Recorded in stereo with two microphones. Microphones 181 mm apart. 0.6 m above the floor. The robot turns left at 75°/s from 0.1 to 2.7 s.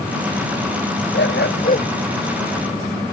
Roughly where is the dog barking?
Left.